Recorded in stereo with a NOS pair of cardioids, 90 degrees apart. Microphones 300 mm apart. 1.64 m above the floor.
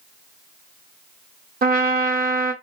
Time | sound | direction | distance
1.6 | a trumpet | 30° right | 0.7 m